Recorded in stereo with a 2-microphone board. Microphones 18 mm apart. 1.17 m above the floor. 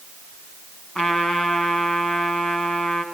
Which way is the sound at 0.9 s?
70° left (ahead or behind).